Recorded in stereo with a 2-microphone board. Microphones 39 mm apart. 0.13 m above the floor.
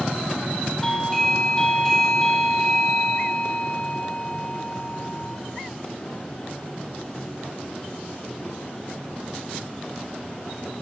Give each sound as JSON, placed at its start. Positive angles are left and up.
{"t": 0.8, "sound": "a doorbell", "side_deg": 10, "distance_m": 5.0}